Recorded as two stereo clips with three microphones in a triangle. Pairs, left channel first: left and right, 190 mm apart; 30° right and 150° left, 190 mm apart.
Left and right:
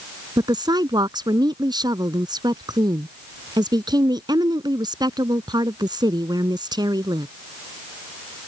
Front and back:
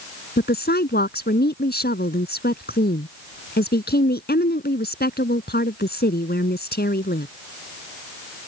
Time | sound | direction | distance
0.4 | a woman speaking | 25° right | ?